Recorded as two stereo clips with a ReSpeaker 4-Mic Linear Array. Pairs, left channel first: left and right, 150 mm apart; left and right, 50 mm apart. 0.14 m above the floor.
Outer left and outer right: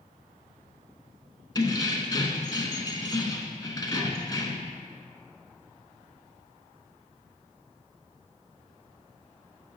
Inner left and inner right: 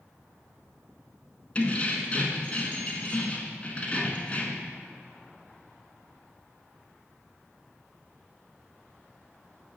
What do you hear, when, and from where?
1.6 s keys jangling: 25° left (ahead or behind), 0.8 m